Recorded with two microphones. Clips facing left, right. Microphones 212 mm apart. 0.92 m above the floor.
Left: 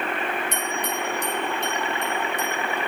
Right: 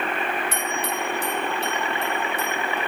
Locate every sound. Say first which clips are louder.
0.5 s a bell: even; 5° right (ahead or behind), 3.5 m